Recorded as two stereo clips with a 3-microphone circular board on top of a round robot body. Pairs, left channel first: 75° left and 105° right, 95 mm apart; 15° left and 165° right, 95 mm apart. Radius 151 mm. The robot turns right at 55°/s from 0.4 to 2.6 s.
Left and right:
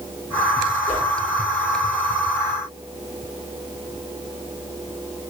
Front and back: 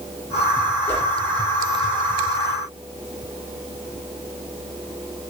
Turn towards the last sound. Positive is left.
turn(degrees=180)